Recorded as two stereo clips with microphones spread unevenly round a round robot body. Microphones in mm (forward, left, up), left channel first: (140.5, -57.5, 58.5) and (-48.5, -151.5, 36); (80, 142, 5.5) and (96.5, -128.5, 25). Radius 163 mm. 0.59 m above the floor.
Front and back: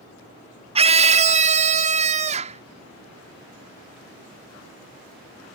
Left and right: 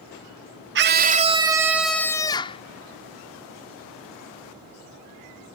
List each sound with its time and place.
0.8 s a scream: 115° right; by 2.6 s 155° left